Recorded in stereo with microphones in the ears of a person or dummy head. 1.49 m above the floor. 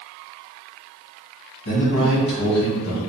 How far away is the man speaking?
About 1.4 m.